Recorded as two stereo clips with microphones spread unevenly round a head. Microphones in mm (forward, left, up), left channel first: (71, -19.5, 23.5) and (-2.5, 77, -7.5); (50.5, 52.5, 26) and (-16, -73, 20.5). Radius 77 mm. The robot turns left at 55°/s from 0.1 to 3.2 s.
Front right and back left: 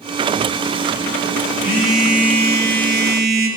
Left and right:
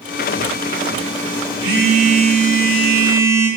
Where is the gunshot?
I don't hear a gunshot.